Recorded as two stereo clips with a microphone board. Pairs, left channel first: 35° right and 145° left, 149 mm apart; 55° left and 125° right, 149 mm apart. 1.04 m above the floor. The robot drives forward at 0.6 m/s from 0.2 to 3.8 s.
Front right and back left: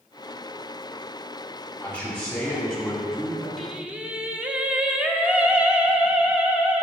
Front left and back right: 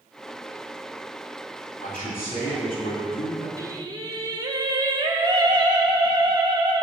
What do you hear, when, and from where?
1.8 s a man speaking: 45° left, 3 m; by 3.5 s 65° left, 2.5 m
3.6 s singing: 120° right, 0.6 m; by 6.8 s 140° right, 0.6 m